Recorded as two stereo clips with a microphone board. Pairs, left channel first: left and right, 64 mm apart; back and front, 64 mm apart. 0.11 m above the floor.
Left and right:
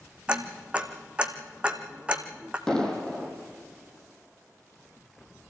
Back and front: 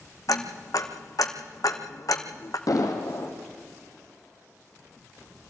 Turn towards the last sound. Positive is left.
turn(degrees=170)